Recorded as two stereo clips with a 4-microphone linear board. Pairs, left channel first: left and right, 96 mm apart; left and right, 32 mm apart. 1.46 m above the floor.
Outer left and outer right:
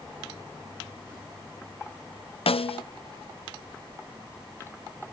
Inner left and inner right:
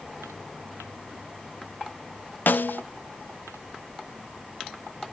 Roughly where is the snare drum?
Left.